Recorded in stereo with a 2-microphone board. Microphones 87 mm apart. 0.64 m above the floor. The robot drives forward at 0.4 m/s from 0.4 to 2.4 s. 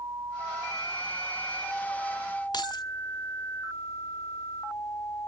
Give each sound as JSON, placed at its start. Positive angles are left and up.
{"t": 2.5, "sound": "keys jangling", "side_deg": 55, "distance_m": 0.7}